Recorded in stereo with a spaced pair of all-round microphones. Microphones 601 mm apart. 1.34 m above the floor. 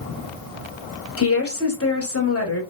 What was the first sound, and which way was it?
A woman speaking, 20° left (ahead or behind).